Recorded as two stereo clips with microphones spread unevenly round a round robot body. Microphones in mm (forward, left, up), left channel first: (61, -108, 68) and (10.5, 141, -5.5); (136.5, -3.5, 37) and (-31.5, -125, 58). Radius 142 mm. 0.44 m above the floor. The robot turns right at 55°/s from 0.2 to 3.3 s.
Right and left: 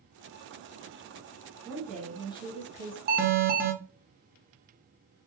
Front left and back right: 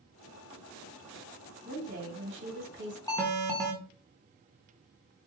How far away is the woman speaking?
About 1.4 m.